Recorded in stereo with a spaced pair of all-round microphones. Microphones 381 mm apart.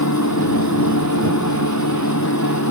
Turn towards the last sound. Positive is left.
turn(degrees=45)  # may be behind; listen again after turning